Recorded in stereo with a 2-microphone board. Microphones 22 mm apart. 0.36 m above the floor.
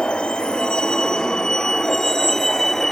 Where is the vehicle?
50° left (ahead or behind); by 2.9 s 20° left (ahead or behind).